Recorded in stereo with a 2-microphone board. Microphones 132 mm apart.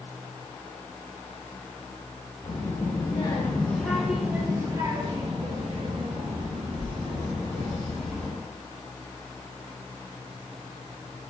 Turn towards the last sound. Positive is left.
turn(degrees=-55)  # may be behind; listen again after turning